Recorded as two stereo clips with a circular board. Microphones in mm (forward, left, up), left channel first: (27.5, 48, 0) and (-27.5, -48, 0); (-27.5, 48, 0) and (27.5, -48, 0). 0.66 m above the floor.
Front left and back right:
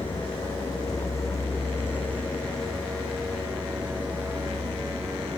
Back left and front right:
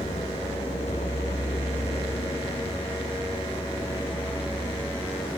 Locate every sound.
0.0 s a vehicle: 105° left; by 5.4 s 175° left